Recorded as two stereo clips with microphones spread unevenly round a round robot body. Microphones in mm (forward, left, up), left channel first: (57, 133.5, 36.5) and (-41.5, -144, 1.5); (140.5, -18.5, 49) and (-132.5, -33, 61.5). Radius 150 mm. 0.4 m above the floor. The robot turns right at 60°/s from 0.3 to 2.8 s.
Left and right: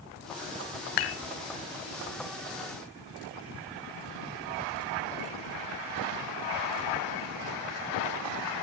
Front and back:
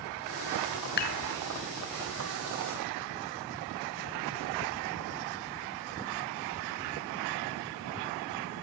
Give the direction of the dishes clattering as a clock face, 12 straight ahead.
10 o'clock.